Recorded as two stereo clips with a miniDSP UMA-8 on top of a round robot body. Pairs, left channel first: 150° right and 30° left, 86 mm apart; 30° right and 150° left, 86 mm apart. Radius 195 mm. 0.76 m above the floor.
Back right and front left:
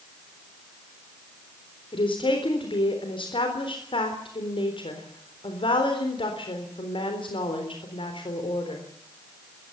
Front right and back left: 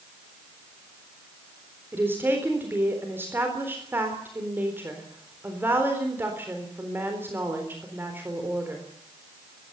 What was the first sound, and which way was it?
A woman speaking, 145° right.